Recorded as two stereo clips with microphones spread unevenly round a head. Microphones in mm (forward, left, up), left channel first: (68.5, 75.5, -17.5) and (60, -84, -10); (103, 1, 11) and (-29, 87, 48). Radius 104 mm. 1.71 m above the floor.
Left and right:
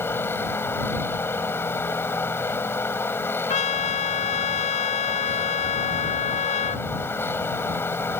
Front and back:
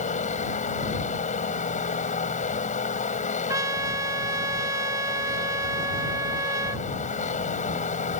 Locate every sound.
0.0 s a machine running: 10° left
3.5 s a trumpet: 110° left